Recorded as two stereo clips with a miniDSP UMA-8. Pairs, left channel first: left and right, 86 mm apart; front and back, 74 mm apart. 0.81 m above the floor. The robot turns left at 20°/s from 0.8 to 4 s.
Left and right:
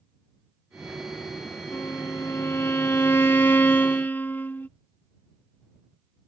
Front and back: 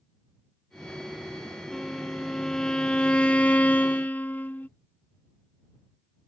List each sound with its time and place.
1.7 s a violin: 90° left; by 4.7 s 45° left